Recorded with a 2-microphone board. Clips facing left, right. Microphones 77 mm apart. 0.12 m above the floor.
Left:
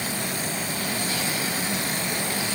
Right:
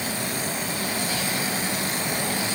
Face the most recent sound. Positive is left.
No sound to turn to.